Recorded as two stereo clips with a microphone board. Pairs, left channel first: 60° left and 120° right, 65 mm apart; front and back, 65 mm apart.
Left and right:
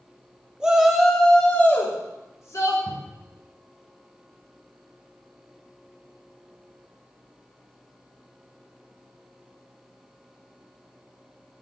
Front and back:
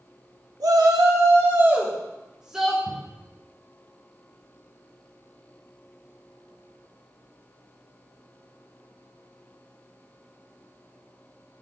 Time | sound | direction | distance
0.6 | a shout | 160° left | 2.5 m
2.9 | a cupboard door | 20° left | 2 m